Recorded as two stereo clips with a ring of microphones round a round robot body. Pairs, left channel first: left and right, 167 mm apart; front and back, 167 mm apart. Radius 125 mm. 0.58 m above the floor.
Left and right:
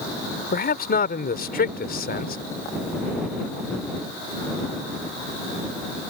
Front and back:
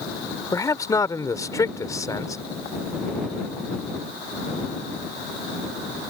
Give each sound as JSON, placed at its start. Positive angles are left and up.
{"t": 0.5, "sound": "a man speaking", "azimuth_deg": 70}